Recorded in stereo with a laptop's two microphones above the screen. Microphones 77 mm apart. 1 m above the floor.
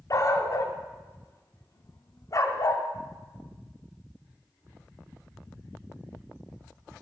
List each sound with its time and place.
0.1 s a dog barking: 45° left (ahead or behind), 0.7 m